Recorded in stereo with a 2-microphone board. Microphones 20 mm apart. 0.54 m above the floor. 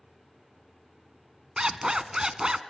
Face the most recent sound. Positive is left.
turn(degrees=-40)  # may be behind; listen again after turning